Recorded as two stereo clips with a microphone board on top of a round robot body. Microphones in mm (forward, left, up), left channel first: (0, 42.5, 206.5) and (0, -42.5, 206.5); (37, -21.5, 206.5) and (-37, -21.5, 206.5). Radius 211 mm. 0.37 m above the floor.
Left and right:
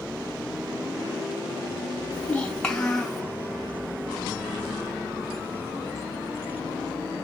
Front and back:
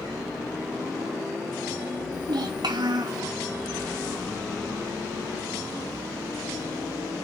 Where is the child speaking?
165° left, 3.5 m; by 3.2 s straight behind, 4 m.